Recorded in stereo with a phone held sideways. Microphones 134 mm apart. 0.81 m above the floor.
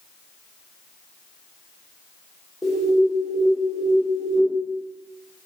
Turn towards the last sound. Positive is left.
turn(degrees=0)  # may be behind; listen again after turning